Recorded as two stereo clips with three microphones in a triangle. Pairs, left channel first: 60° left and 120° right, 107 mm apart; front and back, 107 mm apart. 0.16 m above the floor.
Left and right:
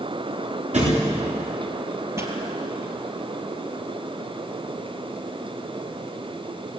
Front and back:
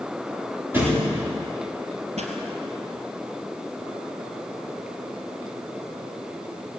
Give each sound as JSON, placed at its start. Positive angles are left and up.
{"t": 0.7, "sound": "a thud", "azimuth_deg": -110, "distance_m": 8.5}
{"t": 2.2, "sound": "a pop", "azimuth_deg": 175, "distance_m": 3.0}